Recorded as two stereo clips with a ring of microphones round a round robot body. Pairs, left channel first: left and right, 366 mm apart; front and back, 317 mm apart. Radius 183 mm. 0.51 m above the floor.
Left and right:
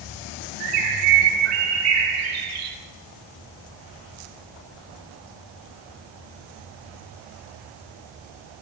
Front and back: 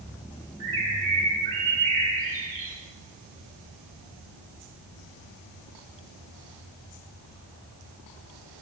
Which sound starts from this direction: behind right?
A bird, at 0.6 s.